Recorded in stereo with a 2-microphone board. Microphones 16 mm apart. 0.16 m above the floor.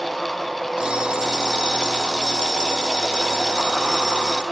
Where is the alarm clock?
70° right (ahead or behind), 2 m.